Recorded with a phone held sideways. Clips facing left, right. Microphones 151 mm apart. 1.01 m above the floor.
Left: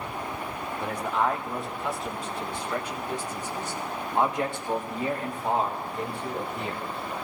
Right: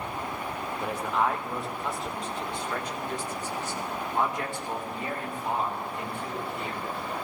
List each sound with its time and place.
0.8 s a man speaking: 5° right (ahead or behind), 4 m; by 6.8 s 40° left (ahead or behind), 4 m